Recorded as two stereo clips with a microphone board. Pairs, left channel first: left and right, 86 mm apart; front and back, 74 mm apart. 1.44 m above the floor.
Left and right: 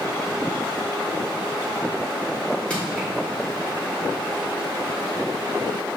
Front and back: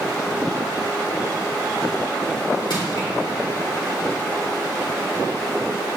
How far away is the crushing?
About 2.5 m.